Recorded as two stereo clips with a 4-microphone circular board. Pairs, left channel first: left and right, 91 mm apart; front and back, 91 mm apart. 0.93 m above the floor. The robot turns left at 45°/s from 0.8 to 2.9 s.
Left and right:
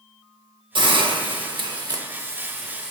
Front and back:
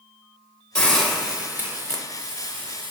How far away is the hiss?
About 0.7 m.